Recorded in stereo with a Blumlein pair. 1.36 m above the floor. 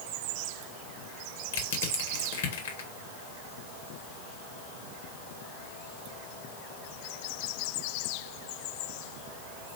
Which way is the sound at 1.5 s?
55° left.